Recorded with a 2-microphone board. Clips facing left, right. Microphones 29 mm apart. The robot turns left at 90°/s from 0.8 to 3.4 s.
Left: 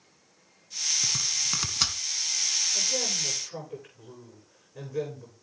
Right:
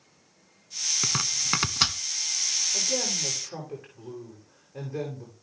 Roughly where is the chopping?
Right.